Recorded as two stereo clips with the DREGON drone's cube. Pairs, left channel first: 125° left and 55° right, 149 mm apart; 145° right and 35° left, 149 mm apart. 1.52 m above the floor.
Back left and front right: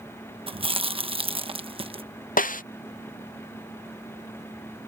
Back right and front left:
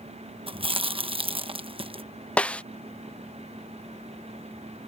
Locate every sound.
0.5 s chewing: 10° right
2.4 s a snare drum: 135° left